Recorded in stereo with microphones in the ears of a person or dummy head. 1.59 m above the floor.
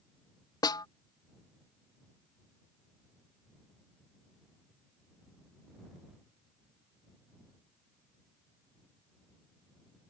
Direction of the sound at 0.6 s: 25° left (ahead or behind).